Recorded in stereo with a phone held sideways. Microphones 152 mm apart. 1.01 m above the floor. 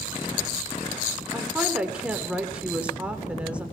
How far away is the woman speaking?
About 3.5 m.